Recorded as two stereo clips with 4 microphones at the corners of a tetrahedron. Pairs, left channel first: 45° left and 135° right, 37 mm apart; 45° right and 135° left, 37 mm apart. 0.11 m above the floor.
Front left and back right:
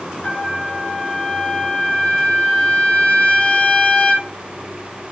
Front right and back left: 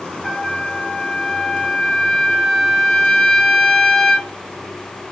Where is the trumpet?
20° left, 0.6 m.